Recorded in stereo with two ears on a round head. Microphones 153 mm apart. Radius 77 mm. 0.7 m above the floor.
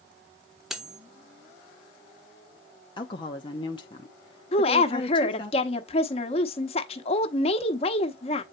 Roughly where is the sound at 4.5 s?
Left.